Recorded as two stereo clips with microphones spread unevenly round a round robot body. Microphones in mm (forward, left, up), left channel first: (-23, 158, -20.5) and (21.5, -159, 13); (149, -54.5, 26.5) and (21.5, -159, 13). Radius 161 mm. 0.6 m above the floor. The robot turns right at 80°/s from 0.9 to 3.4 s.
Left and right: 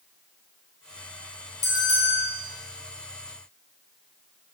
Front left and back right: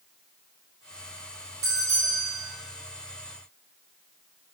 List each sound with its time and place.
1.6 s a bell: 170° left, 2.5 m; by 2.2 s 140° right, 2.5 m